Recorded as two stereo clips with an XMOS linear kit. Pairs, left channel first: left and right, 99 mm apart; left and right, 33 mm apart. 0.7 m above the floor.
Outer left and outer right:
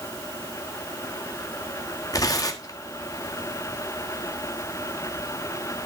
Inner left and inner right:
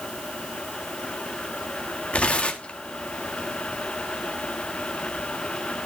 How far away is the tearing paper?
About 1.5 m.